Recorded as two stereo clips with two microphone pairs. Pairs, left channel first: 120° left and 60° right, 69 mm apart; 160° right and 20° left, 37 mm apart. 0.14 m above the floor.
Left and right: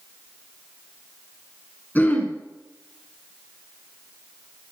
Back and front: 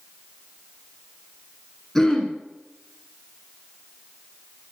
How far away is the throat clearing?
About 1.9 m.